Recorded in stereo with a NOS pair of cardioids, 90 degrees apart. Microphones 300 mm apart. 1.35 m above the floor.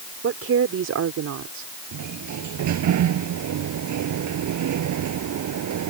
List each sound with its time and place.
0.2 s a woman speaking: 50° right; by 1.7 s 70° right
1.9 s a sliding door: 70° right